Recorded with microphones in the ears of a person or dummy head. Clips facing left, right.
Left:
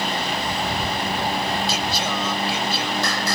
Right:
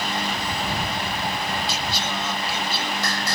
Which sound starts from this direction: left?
Singing, at 1.7 s.